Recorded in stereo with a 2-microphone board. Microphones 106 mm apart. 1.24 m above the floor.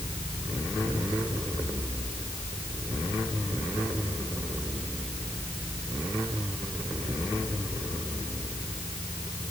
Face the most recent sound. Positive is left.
No sound to turn to.